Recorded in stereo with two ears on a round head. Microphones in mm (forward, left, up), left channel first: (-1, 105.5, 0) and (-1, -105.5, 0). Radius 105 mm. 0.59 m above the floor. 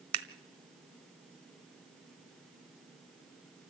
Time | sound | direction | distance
0.1 | scissors | 70° right (ahead or behind) | 1.4 m